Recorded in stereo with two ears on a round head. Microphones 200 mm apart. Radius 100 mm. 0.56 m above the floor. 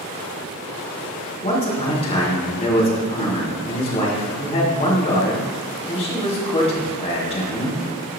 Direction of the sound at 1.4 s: 25° left (ahead or behind).